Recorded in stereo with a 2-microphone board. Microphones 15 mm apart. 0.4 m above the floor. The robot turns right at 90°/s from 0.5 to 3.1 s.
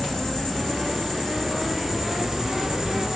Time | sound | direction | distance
0.0 | an insect | 60° left | 1.9 m